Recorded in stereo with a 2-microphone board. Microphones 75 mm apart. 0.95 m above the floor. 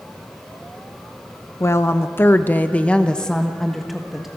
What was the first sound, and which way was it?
A woman speaking, 35° left (ahead or behind).